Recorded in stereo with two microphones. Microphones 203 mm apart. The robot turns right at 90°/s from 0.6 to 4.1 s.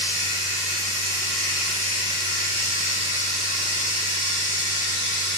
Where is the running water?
70° right, 1.6 m; by 5.4 s 115° right, 1.6 m.